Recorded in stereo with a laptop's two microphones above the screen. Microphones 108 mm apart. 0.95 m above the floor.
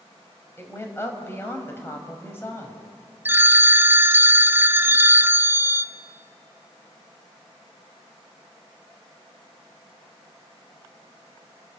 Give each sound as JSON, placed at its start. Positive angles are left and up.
{"t": 0.6, "sound": "a woman speaking", "side_deg": 25, "distance_m": 4.5}
{"t": 3.2, "sound": "a phone ringing", "side_deg": -20, "distance_m": 0.5}